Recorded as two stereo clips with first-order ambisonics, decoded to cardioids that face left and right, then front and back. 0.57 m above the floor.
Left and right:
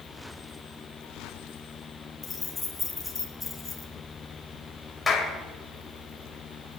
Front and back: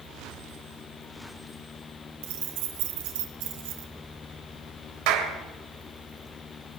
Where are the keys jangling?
170° left, 2.5 m.